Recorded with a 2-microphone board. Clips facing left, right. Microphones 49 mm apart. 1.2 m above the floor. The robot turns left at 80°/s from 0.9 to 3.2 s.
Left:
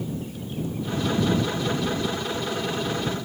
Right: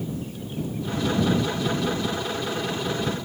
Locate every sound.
Only background noise.